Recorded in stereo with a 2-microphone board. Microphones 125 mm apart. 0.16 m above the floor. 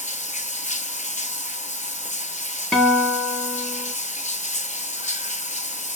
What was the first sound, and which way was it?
Running water, 75° left (ahead or behind).